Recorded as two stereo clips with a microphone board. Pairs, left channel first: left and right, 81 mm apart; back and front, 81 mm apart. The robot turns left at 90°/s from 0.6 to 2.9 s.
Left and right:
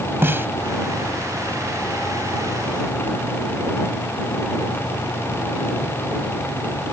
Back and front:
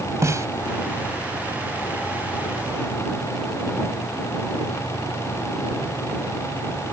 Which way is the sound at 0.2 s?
40° right.